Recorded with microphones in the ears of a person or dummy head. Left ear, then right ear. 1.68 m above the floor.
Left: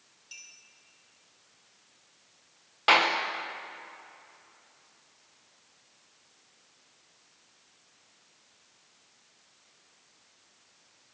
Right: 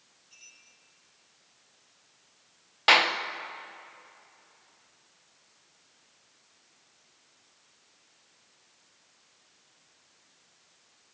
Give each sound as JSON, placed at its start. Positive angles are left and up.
{"t": 0.3, "sound": "a clink", "side_deg": 70, "distance_m": 9.0}
{"t": 2.9, "sound": "a clap", "side_deg": -15, "distance_m": 0.9}